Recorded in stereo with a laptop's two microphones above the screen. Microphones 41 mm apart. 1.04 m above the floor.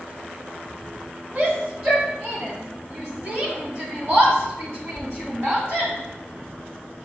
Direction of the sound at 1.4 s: 55° right (ahead or behind).